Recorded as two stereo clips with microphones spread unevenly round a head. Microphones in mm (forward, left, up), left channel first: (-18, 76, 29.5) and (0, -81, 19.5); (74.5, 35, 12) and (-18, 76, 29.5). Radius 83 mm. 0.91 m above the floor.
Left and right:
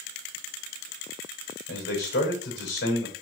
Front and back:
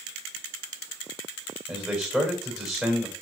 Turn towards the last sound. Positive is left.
turn(degrees=70)